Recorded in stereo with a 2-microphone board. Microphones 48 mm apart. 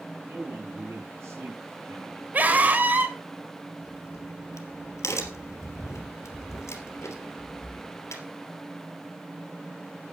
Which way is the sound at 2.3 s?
35° right (ahead or behind).